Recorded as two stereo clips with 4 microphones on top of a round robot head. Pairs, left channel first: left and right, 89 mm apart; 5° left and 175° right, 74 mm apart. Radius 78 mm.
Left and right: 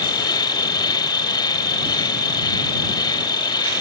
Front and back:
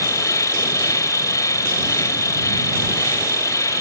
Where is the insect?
50° left.